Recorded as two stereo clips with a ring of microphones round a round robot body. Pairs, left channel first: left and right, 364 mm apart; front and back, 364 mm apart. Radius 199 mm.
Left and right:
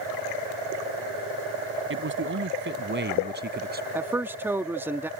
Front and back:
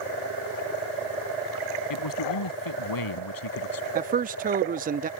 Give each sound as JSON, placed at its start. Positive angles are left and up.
{"t": 1.9, "sound": "a man speaking", "azimuth_deg": -35}
{"t": 4.0, "sound": "a man speaking", "azimuth_deg": -165}